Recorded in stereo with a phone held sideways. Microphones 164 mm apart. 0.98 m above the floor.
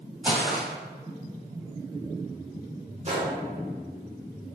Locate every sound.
0.2 s footsteps: 5° right (ahead or behind), 1.6 m
3.0 s a gunshot: 40° right (ahead or behind), 0.7 m